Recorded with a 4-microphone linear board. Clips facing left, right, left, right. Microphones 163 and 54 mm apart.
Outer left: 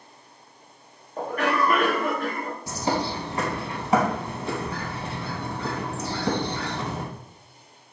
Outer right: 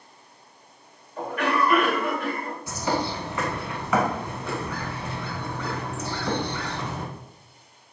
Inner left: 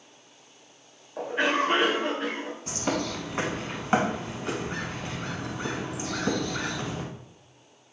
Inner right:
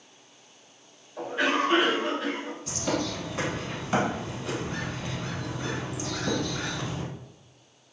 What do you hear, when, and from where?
1.2 s a cough: 40° left (ahead or behind), 1.2 m
2.7 s a bird: 35° left (ahead or behind), 0.7 m